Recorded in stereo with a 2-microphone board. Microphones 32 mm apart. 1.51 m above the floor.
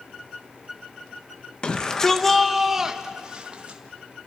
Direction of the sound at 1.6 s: 30° left (ahead or behind).